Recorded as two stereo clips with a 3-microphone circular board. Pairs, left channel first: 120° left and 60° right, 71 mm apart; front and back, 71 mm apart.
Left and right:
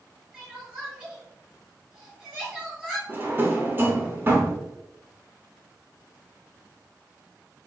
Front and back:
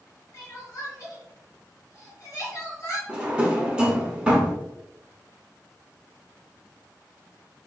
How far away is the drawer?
About 0.9 m.